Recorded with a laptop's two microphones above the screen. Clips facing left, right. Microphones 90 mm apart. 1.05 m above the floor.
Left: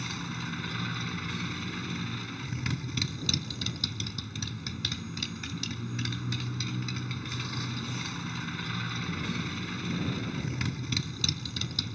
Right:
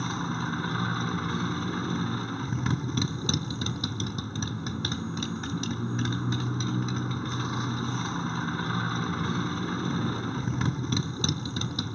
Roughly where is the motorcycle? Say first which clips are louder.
Right 7 dB; right.